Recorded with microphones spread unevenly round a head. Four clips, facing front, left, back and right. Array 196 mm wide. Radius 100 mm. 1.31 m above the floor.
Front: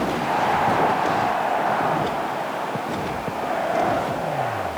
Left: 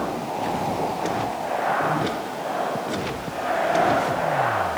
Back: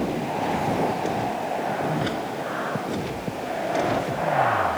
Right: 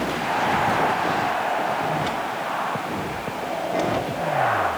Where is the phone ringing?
I don't hear a phone ringing.